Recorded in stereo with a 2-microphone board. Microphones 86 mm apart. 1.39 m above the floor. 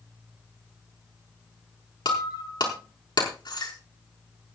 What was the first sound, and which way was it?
Breaking glass, 60° left (ahead or behind).